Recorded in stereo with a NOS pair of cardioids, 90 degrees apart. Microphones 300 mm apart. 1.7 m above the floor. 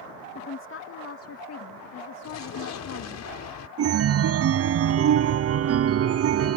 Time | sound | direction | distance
0.3 | a woman speaking | 40° left | ?
2.2 | an explosion | 60° left | ?
3.8 | a chime | 50° right | ?